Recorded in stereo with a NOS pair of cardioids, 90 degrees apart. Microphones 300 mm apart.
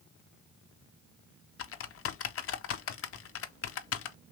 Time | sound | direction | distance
1.6 | typing on a keyboard | 50° left | 0.5 m